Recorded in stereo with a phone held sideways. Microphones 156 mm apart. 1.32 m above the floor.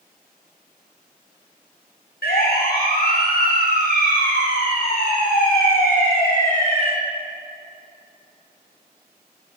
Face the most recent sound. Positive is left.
turn(degrees=65)  # may be behind; listen again after turning